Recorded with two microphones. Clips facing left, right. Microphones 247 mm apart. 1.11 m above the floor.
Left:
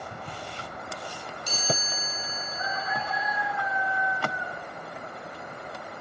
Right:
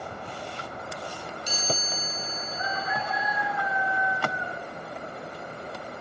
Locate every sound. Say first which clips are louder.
1.5 s a chime: left 1 dB; 55° left (ahead or behind), 3 m